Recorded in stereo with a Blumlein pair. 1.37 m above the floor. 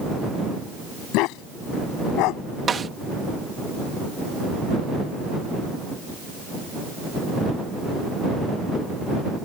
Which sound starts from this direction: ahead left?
A dog barking, at 1.1 s.